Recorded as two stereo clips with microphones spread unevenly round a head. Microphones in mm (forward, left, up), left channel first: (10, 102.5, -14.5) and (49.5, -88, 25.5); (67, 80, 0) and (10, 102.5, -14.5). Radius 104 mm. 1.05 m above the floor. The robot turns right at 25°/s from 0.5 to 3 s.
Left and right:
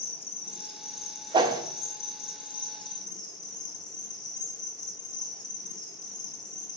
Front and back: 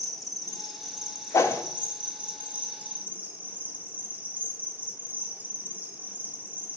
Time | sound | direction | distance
0.0 | an insect | 80° left | 1.2 m
1.3 | a whoosh | 10° right | 0.6 m